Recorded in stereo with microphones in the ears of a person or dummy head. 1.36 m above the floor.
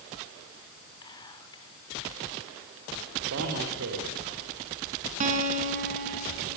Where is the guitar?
40° right (ahead or behind), 5 m.